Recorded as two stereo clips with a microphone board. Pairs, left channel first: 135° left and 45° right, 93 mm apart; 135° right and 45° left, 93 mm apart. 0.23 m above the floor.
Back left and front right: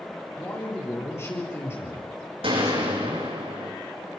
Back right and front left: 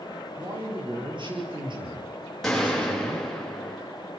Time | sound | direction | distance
0.4 | a man speaking | 75° left | 7.5 m
2.4 | a gunshot | 50° right | 9.5 m